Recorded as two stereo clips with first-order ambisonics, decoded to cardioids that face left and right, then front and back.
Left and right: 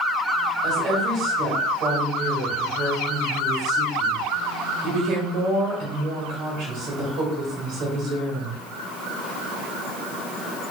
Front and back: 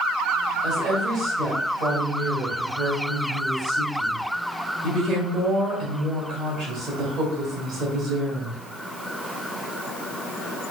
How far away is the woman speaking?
About 1.7 m.